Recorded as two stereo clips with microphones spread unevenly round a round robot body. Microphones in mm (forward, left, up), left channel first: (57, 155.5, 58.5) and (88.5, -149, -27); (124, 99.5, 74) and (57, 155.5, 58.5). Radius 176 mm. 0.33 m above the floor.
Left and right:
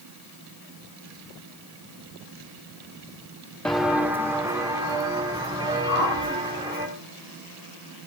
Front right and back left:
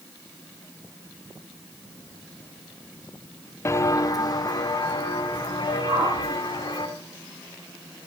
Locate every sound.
3.6 s footsteps: 15° left, 0.7 m; by 6.9 s 5° right, 3.5 m
5.9 s a whoosh: 150° left, 3.5 m